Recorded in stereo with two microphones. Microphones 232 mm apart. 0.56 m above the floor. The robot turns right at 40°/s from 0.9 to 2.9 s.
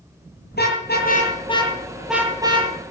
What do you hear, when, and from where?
0.5 s a car horn: 45° left (ahead or behind), 7.5 m; by 2.7 s 25° right (ahead or behind), 7.5 m